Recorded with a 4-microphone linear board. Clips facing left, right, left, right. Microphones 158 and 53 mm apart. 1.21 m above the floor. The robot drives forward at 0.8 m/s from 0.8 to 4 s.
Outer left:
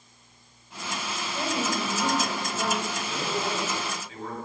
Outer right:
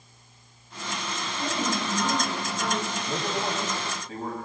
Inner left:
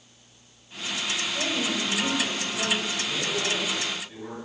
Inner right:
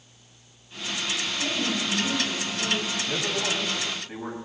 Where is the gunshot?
No gunshot in this recording.